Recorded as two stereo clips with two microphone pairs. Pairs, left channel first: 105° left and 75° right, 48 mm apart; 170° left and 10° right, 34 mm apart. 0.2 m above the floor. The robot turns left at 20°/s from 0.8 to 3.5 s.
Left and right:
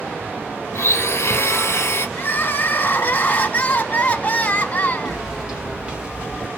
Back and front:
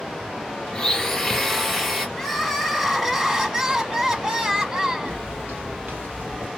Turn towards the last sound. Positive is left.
turn(degrees=-15)